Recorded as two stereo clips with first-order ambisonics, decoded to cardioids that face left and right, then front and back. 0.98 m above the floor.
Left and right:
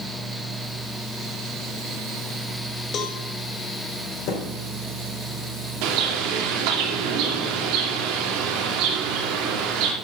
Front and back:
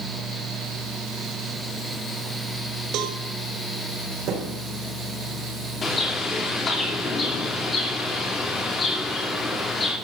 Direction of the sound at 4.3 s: 130° left.